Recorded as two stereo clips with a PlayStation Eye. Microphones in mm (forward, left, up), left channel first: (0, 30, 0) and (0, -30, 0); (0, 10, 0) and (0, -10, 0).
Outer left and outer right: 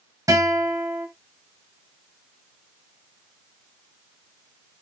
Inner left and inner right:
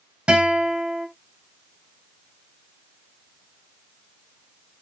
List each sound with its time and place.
0.3 s a guitar: 70° right (ahead or behind), 4 m